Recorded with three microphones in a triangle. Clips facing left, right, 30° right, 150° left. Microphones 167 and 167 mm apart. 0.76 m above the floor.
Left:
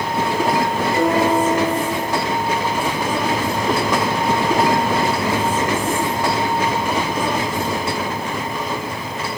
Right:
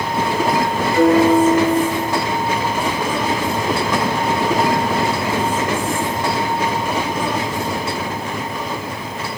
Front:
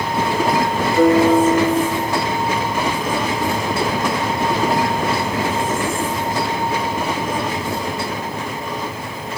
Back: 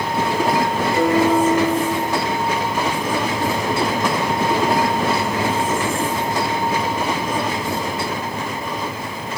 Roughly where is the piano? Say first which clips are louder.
Right 6 dB, front 4 dB; behind left.